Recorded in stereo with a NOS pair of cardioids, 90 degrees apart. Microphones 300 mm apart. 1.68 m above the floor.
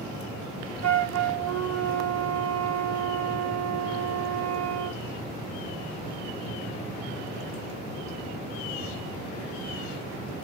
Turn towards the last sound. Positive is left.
turn(degrees=-65)